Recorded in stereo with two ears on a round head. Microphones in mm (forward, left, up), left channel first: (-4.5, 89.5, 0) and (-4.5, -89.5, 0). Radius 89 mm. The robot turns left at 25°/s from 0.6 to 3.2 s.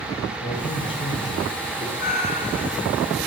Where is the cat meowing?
45° left (ahead or behind), 6.5 m; by 2.8 s 20° left (ahead or behind), 6.5 m.